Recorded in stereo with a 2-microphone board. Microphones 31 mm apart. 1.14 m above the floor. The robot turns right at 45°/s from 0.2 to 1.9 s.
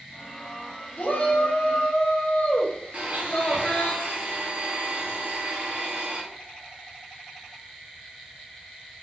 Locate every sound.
1.0 s a shout: 75° left, 0.7 m; by 3.9 s 120° left, 0.7 m
2.9 s a blender: 50° right (ahead or behind), 0.7 m